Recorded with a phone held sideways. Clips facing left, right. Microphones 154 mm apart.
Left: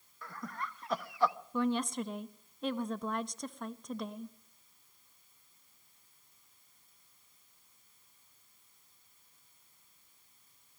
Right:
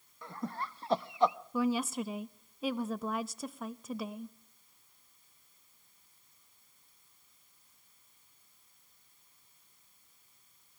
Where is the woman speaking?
5° right (ahead or behind), 0.7 m.